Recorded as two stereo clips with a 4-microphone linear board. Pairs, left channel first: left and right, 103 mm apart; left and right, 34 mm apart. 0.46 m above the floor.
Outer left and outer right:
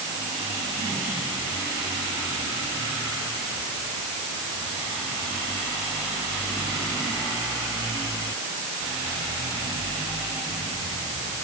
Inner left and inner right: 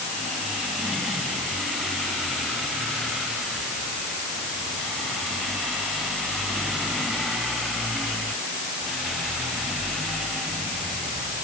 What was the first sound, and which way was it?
Only background noise.